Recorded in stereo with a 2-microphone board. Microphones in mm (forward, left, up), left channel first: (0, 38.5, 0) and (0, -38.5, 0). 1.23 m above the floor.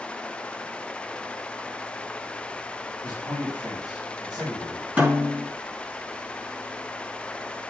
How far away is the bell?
I don't hear a bell.